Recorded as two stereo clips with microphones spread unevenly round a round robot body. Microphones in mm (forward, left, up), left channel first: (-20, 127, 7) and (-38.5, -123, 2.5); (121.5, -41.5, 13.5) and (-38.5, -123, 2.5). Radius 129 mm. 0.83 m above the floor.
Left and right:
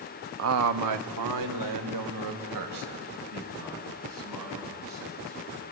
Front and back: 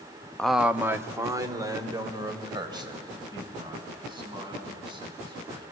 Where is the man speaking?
60° right, 0.7 m; by 5.6 s 90° right, 8 m.